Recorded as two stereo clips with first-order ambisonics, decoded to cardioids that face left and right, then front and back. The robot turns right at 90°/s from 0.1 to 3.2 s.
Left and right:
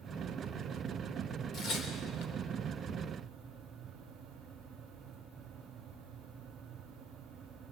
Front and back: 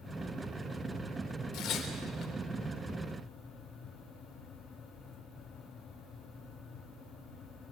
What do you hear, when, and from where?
1.5 s tearing paper: 30° left, 3 m; by 2.3 s 100° left, 3 m